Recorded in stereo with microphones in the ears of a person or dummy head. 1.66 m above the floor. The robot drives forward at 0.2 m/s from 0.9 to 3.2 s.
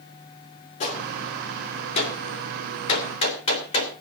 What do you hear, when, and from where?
0.8 s a gunshot: 40° left (ahead or behind), 2.5 m; by 3.9 s 35° left (ahead or behind), 3 m